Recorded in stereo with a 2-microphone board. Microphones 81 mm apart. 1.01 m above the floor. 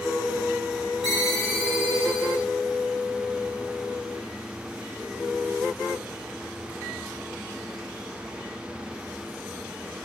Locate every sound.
1.0 s a ringtone: centre (ahead or behind), 5.5 m